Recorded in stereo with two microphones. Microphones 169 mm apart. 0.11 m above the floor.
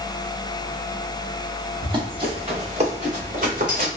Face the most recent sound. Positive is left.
turn(degrees=-50)  # may be behind; listen again after turning